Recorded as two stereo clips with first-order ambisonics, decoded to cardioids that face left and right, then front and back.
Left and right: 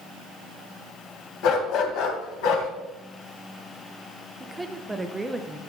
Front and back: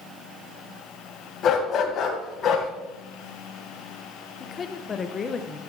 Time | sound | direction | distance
1.4 | a dog barking | 60° left | 1.6 m
4.4 | a woman speaking | 20° right | 0.7 m